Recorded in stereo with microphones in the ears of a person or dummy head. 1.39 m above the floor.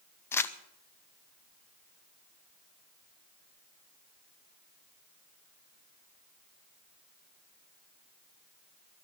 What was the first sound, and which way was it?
Crumpling, 20° left (ahead or behind).